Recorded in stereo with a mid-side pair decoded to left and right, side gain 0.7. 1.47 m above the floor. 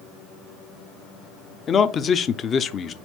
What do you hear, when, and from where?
1.7 s a man speaking: 30° left, 0.5 m